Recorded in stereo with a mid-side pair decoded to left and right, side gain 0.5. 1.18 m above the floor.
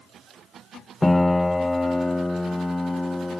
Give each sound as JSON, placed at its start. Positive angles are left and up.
{"t": 1.0, "sound": "a piano", "azimuth_deg": 10}